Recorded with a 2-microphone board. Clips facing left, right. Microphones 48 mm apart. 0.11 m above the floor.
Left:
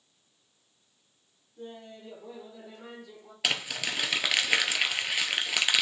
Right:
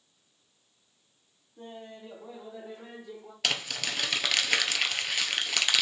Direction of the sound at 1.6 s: 35° right (ahead or behind).